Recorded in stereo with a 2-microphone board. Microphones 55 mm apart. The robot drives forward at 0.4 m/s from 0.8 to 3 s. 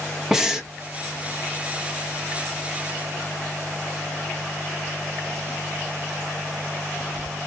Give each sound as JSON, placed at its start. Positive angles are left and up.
{"t": 0.3, "sound": "breathing", "side_deg": -10, "distance_m": 0.6}